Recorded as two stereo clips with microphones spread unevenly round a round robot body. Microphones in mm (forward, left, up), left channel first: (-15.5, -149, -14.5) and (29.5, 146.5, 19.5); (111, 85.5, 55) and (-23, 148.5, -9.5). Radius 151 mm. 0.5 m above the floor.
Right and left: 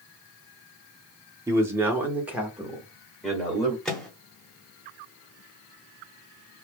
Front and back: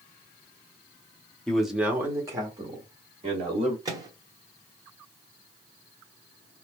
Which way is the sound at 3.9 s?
Straight behind.